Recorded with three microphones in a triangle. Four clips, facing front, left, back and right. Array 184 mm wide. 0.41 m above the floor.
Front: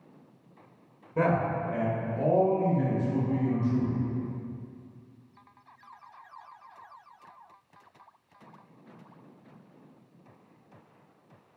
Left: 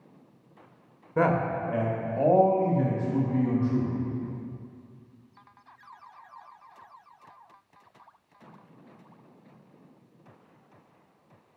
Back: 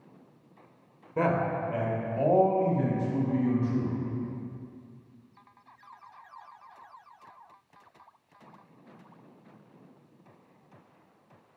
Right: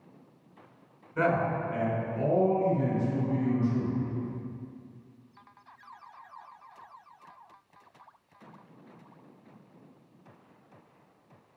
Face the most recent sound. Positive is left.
turn(degrees=115)